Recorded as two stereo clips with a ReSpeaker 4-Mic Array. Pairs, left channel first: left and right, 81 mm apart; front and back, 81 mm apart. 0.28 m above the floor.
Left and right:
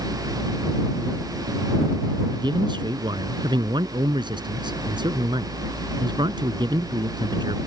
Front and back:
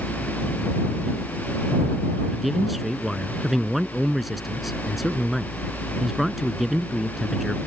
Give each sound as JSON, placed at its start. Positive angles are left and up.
{"t": 2.3, "sound": "a man speaking", "azimuth_deg": -90}